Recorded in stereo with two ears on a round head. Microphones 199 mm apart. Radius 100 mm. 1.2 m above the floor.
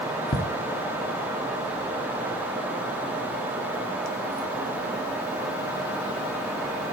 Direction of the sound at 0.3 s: 25° left (ahead or behind).